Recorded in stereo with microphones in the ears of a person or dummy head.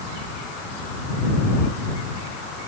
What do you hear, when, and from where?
Only background noise.